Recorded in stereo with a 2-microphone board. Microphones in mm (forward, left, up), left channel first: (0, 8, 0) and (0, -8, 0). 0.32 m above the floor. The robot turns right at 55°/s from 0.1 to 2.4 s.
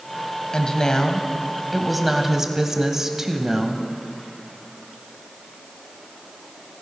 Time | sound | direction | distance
0.5 | a woman speaking | 105° left | 1.6 m